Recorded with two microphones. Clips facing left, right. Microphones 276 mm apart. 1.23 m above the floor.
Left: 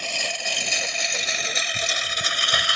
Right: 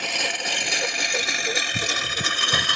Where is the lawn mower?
75° right (ahead or behind); by 2.8 s 60° right (ahead or behind).